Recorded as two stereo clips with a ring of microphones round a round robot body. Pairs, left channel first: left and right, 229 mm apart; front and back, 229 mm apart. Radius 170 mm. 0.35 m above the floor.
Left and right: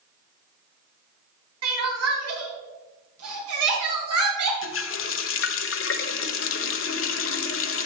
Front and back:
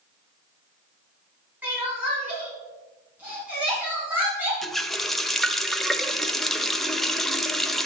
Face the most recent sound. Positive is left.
turn(degrees=90)